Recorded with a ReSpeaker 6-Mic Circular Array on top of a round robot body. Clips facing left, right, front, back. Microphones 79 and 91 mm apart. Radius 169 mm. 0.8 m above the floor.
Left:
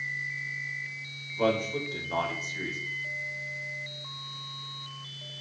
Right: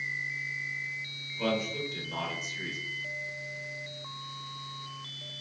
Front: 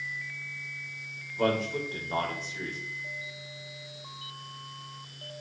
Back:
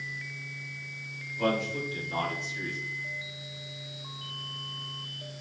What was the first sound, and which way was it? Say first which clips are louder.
A man speaking: left 4 dB, front 1 dB; 45° left.